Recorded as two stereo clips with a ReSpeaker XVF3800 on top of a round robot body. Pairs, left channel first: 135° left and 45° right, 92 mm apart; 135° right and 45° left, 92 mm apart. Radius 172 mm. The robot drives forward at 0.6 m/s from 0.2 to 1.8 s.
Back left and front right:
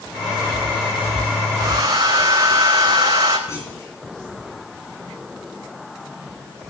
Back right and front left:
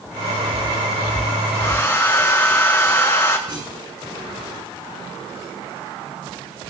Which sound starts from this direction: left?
A clunk, at 3.5 s.